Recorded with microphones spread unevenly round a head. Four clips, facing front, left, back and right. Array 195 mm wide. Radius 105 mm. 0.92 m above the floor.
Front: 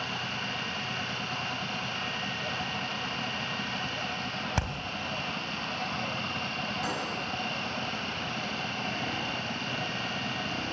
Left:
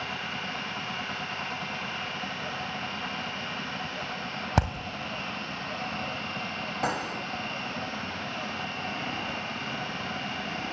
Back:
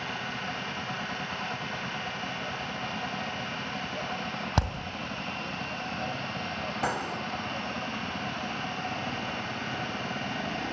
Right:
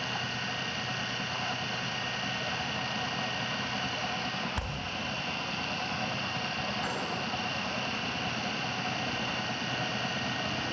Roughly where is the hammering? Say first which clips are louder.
Left 11 dB, back 5 dB; left.